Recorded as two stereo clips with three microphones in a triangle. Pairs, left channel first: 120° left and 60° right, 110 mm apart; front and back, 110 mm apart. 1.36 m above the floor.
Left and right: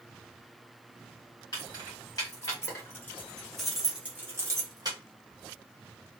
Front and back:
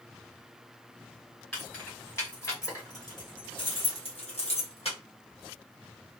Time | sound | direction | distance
1.5 | keys jangling | 70° left | 1.8 m